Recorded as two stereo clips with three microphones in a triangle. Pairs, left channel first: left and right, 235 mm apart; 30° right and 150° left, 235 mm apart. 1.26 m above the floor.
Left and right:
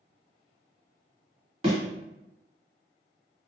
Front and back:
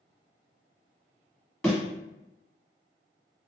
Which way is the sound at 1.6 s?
110° right.